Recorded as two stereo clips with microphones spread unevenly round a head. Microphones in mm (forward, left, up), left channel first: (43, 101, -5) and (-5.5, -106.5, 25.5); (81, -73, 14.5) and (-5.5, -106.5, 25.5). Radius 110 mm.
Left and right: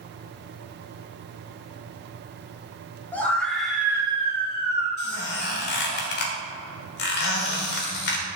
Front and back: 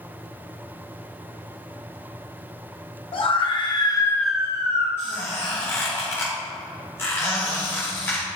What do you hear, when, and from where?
3.1 s a scream: 10° right, 1.6 m; by 4.9 s 150° right, 0.8 m
5.0 s a squeak: 90° left, 1.2 m